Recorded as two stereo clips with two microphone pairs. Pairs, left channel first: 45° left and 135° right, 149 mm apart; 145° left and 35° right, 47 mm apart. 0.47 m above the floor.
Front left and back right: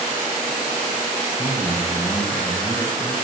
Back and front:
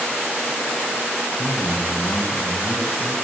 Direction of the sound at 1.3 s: 120° left.